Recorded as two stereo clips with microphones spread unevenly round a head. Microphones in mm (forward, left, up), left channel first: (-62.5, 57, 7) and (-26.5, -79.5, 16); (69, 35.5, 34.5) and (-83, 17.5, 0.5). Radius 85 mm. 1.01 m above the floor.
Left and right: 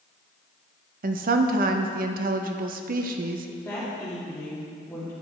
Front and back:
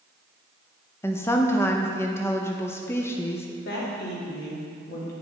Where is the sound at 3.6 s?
30° left, 1.8 m.